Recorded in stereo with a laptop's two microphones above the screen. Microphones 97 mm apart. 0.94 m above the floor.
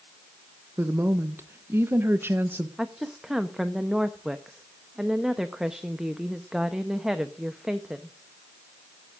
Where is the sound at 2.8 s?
5° right (ahead or behind), 0.8 m.